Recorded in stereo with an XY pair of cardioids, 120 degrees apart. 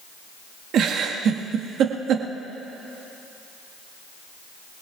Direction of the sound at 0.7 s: 60° right.